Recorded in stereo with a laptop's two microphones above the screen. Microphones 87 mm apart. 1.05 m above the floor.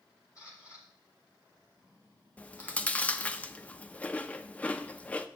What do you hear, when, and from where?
0.3 s a camera shutter: 45° left (ahead or behind), 4.5 m
2.4 s chewing: 15° left (ahead or behind), 0.5 m